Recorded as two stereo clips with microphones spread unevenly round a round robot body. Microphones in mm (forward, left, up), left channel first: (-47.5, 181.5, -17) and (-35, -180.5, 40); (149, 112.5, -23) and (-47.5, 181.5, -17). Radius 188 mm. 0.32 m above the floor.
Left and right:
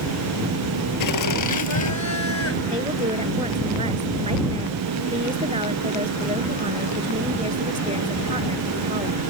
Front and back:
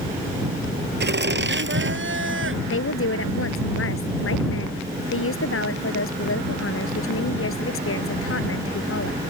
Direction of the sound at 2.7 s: 15° right.